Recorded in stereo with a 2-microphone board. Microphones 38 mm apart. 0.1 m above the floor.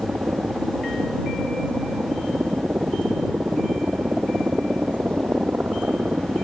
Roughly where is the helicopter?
Right.